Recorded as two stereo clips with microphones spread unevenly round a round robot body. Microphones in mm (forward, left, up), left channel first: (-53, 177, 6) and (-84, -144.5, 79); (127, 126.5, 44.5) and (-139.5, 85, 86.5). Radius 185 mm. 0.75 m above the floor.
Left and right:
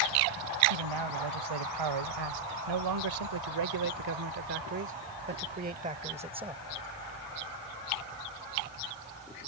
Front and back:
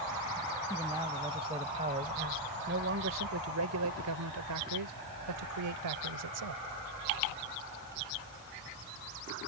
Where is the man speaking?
90° right; by 6.6 s 175° right.